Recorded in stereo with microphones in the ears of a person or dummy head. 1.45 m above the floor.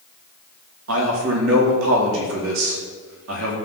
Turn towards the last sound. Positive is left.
turn(degrees=-80)